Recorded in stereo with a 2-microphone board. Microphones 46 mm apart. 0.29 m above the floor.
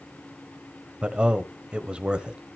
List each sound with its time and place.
1.0 s a man speaking: 20° right (ahead or behind), 1.0 m